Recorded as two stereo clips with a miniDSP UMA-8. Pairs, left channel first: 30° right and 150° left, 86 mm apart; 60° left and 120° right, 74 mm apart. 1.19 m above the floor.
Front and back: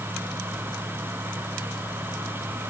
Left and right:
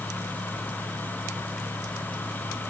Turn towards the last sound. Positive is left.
No sound to turn to.